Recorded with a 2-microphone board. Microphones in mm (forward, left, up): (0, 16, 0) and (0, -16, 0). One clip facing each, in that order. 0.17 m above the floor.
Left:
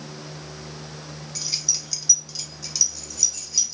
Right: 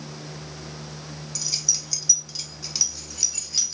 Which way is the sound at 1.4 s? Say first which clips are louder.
Even; 20° left (ahead or behind).